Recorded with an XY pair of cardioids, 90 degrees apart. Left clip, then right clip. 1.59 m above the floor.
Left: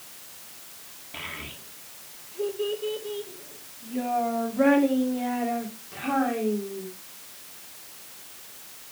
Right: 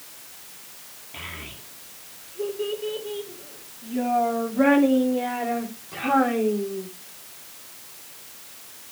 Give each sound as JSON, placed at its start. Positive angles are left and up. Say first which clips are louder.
{"t": 1.1, "sound": "a child speaking", "louder": "even", "azimuth_deg": 25, "distance_m": 2.5}